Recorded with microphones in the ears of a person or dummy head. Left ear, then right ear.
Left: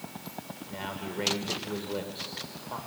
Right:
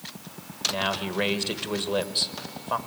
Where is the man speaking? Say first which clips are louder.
Right 8 dB; 50° right (ahead or behind), 1.6 m.